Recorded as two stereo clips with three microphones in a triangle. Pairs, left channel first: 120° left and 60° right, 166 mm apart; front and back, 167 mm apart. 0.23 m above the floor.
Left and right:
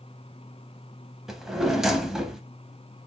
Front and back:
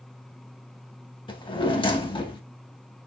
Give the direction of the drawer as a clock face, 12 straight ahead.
11 o'clock.